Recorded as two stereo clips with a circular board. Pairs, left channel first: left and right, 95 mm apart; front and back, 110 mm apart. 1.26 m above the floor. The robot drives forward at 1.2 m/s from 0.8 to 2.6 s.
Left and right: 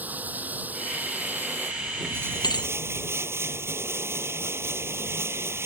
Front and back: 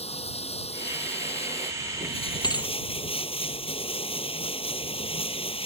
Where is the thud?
50° left.